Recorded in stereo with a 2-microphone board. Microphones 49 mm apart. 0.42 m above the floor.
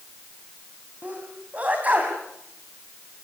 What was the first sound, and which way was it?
A sneeze, 30° right (ahead or behind).